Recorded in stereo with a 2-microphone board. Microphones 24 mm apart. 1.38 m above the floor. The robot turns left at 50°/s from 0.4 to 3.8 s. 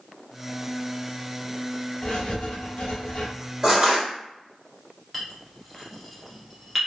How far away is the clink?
About 0.9 m.